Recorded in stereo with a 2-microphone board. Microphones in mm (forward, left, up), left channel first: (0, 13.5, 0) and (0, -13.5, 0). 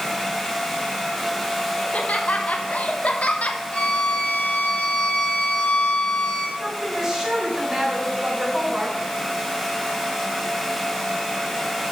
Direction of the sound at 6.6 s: 15° right (ahead or behind).